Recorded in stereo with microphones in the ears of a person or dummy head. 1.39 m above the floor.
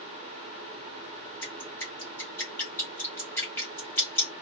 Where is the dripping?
15° left (ahead or behind), 1.0 m.